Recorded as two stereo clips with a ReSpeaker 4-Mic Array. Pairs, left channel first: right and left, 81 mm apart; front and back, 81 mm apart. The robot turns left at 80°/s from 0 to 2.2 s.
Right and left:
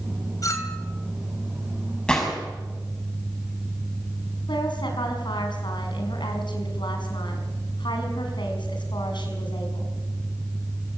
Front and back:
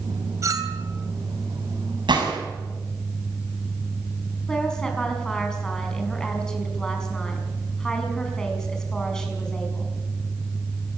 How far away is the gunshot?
About 5.5 m.